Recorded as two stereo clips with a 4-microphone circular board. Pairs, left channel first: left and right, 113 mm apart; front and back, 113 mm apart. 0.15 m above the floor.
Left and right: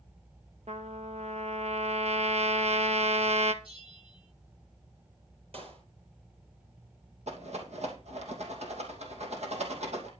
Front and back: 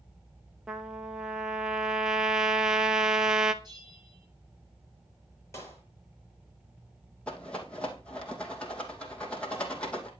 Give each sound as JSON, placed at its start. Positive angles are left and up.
{"t": 0.7, "sound": "a trumpet", "azimuth_deg": -95, "distance_m": 0.9}
{"t": 3.6, "sound": "a bell", "azimuth_deg": -130, "distance_m": 8.0}
{"t": 5.5, "sound": "a clap", "azimuth_deg": -65, "distance_m": 4.5}
{"t": 7.3, "sound": "a rattle", "azimuth_deg": -80, "distance_m": 3.0}